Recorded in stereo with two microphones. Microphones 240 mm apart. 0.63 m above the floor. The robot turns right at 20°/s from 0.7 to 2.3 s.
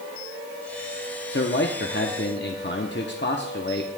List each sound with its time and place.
1.3 s a man speaking: 45° left (ahead or behind), 0.9 m